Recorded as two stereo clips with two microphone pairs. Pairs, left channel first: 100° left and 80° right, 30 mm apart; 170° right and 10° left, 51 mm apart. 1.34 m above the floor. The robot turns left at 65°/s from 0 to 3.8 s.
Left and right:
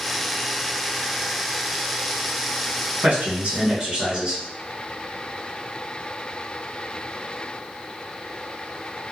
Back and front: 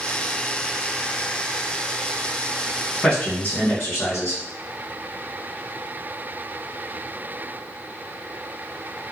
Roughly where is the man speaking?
Right.